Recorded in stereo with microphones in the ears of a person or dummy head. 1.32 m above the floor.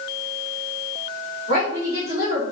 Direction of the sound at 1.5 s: 40° right (ahead or behind).